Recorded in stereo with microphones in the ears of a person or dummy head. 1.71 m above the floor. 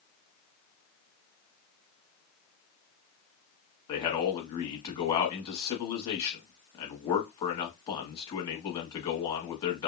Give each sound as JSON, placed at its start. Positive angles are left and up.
{"t": 3.9, "sound": "a man speaking", "side_deg": 25, "distance_m": 1.0}